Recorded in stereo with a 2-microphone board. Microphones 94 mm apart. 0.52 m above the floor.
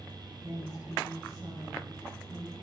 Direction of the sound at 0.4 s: 35° right (ahead or behind).